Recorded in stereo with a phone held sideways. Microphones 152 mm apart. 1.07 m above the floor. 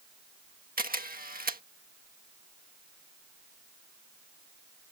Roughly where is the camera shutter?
Right.